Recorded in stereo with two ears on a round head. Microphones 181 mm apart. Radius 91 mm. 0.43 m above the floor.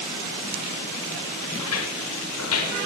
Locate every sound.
1.6 s footsteps: 80° left, 6.5 m; by 2.9 s 75° left (ahead or behind), 7 m